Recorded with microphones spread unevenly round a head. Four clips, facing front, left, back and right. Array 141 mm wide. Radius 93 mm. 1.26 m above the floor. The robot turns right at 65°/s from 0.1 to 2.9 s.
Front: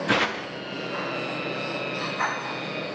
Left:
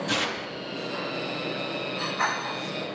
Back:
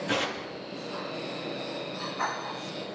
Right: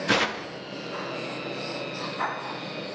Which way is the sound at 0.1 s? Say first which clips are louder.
Right 4 dB, front 6 dB; 20° right.